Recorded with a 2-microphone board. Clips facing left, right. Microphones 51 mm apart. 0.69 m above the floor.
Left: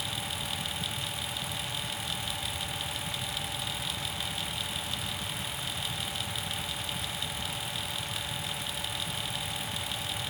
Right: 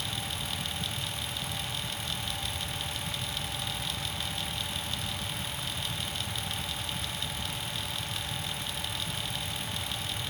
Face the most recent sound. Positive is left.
No sound to turn to.